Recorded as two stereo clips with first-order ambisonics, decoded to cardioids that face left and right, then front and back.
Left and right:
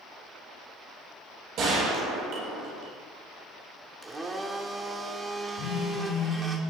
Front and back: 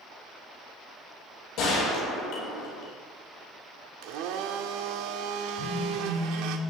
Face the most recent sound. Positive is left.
turn(degrees=110)